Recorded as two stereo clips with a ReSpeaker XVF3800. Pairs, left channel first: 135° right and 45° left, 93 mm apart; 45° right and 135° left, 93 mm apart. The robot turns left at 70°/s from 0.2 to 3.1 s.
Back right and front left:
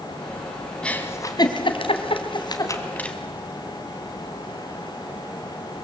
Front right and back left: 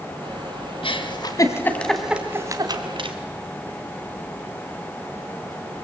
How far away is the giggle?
About 1.8 m.